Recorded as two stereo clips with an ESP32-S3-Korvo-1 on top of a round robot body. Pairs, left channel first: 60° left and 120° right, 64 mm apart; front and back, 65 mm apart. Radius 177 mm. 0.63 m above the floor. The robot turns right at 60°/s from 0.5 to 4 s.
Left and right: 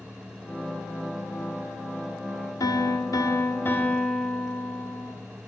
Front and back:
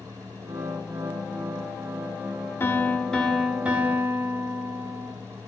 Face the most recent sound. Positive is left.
turn(degrees=135)